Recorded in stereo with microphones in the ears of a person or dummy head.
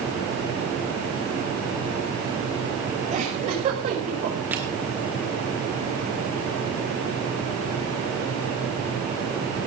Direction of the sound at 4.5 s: 10° right (ahead or behind).